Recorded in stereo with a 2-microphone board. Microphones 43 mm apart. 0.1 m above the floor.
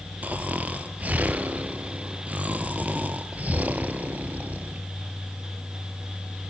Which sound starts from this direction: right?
Snoring, at 0.2 s.